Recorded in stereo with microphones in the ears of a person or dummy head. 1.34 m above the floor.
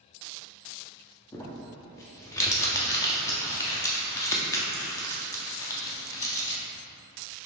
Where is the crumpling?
15° left (ahead or behind), 0.6 m.